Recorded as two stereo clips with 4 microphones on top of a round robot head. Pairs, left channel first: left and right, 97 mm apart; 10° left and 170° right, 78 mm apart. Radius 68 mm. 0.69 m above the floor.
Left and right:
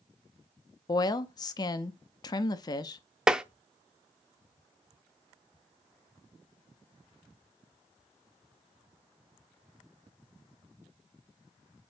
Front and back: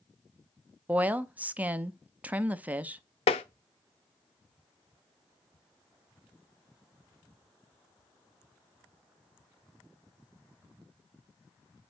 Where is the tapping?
10° right, 0.5 m.